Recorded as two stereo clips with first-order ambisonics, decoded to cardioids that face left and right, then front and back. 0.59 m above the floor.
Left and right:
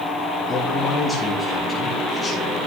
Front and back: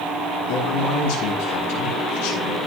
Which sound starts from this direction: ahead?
A man speaking, at 0.5 s.